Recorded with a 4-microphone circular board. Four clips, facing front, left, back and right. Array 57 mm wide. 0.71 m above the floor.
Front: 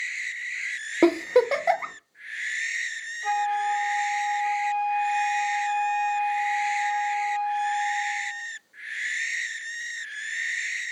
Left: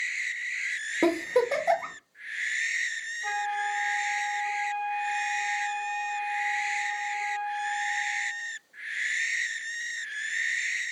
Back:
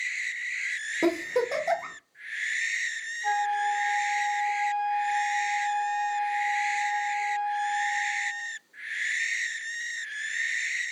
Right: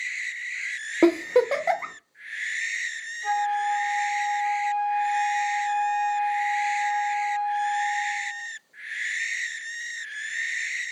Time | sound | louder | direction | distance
1.0 | a giggle | right 5 dB, front 7 dB | 40° right | 0.7 m
3.2 | a flute | right 6 dB, front 1 dB | 15° right | 1.4 m